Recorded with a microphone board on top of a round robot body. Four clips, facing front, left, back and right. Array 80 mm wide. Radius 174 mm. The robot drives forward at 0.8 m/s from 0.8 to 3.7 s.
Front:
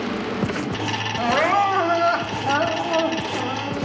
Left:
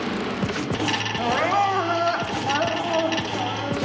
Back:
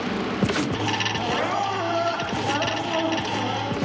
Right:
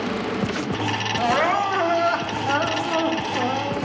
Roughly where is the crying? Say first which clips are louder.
Right 1 dB, front 9 dB; ahead right.